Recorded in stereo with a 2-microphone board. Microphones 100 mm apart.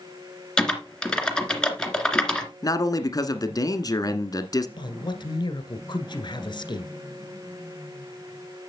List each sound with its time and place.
0.6 s typing on a keyboard: 10° left (ahead or behind), 2 m
2.6 s a man speaking: 40° left (ahead or behind), 1.5 m
4.8 s a man speaking: 50° left (ahead or behind), 1.8 m